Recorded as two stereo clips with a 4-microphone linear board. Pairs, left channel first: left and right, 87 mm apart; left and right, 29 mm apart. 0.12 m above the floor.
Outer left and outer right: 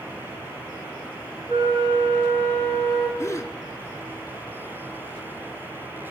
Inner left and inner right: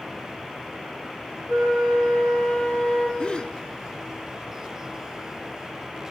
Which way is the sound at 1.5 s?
35° left (ahead or behind).